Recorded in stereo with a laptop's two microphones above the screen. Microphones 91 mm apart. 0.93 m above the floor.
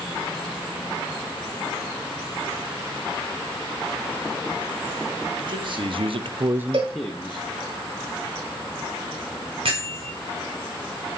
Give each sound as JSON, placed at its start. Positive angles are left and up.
{"t": 5.4, "sound": "a man speaking", "side_deg": -50, "distance_m": 1.4}
{"t": 6.7, "sound": "a cowbell", "side_deg": -60, "distance_m": 1.3}
{"t": 9.7, "sound": "a bell", "side_deg": -70, "distance_m": 1.9}